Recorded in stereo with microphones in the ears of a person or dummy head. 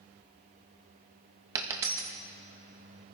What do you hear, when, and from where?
1.6 s a dropped coin: 15° right (ahead or behind), 0.8 m